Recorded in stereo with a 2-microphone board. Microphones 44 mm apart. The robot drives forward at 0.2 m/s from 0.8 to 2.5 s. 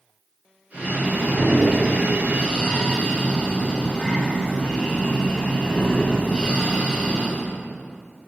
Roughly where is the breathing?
Left.